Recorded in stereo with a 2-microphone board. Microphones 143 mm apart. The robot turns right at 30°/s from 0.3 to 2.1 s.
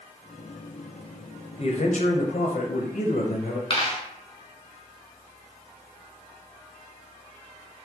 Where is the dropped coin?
35° left (ahead or behind), 0.9 m.